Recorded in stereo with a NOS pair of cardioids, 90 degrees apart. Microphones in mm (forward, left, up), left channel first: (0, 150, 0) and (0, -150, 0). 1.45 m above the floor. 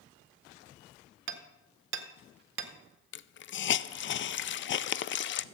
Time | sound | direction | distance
1.3 | hammering | 45° right | 1.5 m
3.1 | a hiss | 40° left | 0.5 m